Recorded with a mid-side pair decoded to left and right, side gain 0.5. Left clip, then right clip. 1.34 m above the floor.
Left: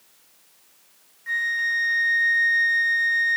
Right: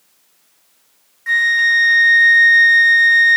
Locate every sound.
1.3 s a flute: 60° right